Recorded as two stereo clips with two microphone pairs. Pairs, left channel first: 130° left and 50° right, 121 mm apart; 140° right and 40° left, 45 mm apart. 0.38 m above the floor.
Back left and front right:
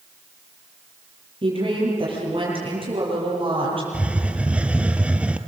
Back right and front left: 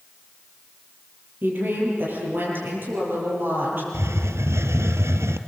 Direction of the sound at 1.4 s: 5° right.